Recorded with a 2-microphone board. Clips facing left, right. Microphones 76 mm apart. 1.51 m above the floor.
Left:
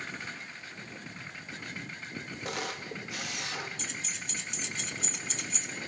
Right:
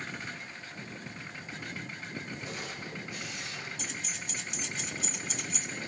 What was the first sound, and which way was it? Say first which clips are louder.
A camera shutter: left 4 dB; 75° left (ahead or behind).